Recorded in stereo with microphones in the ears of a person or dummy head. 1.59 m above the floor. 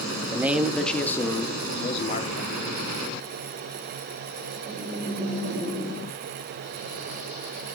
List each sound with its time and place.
0.3 s a man speaking: 10° right (ahead or behind), 1.4 m; by 2.5 s 45° left (ahead or behind), 1.8 m